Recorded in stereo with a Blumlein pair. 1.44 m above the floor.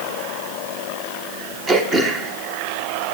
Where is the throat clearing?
20° right, 1.2 m.